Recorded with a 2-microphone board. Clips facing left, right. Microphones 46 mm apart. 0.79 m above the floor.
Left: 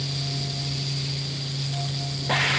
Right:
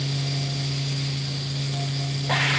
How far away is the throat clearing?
I don't hear throat clearing.